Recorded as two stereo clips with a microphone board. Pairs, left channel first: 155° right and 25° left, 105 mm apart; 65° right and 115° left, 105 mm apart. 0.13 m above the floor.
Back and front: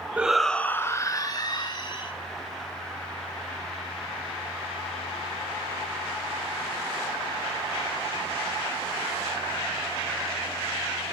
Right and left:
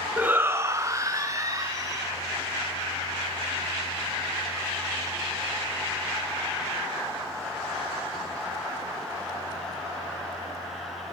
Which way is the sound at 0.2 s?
70° left.